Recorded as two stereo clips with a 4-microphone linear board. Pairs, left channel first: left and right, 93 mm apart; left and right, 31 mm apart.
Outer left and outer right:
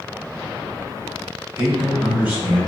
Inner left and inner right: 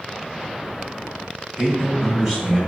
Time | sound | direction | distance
1.6 | a man speaking | 25° right (ahead or behind) | 1.1 m